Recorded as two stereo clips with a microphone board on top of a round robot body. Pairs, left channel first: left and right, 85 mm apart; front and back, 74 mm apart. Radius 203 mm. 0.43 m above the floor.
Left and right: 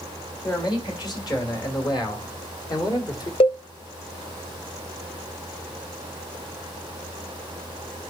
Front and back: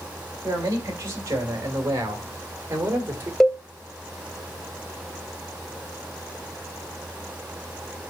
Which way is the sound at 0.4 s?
130° left.